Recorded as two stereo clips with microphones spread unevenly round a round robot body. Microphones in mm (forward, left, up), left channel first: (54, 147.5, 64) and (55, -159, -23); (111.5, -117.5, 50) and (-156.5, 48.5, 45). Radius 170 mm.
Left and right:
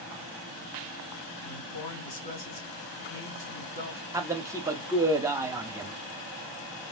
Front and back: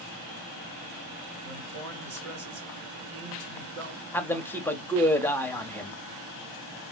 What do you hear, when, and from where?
1.4 s a man speaking: 100° left, 2.0 m
4.1 s a man speaking: 110° right, 0.7 m